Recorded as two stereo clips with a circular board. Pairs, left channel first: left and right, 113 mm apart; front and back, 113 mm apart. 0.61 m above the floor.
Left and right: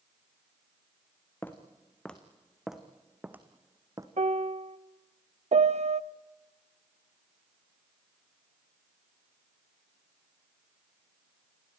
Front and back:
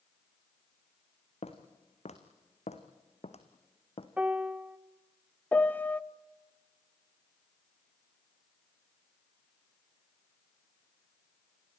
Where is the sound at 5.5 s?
75° right, 0.5 m.